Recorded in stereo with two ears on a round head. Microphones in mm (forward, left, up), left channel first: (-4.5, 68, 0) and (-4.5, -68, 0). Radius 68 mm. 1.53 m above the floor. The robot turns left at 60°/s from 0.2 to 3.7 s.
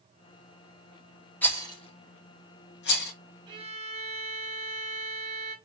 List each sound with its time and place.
1.4 s a rattle: 10° left (ahead or behind), 1.0 m; by 3.1 s 60° left (ahead or behind), 1.0 m
3.5 s a violin: 25° right (ahead or behind), 0.9 m; by 5.5 s 40° right (ahead or behind), 0.9 m